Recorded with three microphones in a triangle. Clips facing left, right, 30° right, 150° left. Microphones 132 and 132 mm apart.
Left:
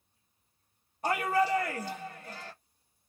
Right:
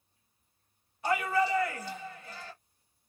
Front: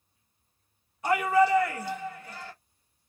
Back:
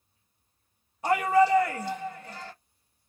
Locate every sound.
1.0 s a shout: 110° left, 0.9 m